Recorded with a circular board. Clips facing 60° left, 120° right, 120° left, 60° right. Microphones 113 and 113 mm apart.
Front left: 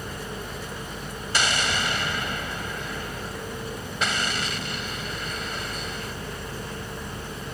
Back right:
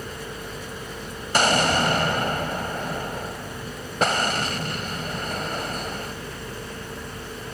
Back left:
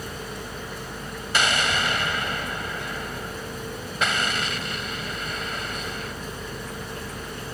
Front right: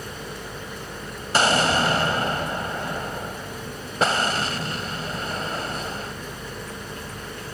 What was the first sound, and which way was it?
An explosion, 100° right.